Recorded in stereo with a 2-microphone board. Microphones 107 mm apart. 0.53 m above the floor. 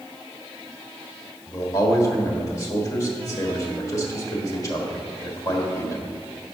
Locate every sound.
1.5 s a man speaking: 30° left (ahead or behind), 1.5 m